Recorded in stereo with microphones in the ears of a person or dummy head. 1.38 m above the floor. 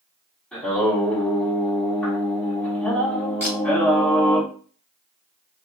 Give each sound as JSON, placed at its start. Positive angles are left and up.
{"t": 0.5, "sound": "singing", "side_deg": 5, "distance_m": 1.8}
{"t": 3.4, "sound": "a camera shutter", "side_deg": -15, "distance_m": 2.0}